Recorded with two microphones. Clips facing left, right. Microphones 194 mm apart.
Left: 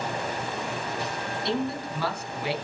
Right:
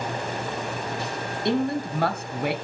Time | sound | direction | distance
1.4 | a man speaking | 60° right (ahead or behind) | 2.5 m